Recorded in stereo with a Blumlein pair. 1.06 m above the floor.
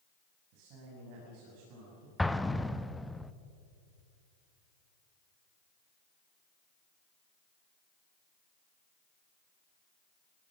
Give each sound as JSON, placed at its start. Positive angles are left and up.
{"t": 0.5, "sound": "a man speaking", "azimuth_deg": -45, "distance_m": 6.5}
{"t": 2.2, "sound": "an explosion", "azimuth_deg": 5, "distance_m": 0.7}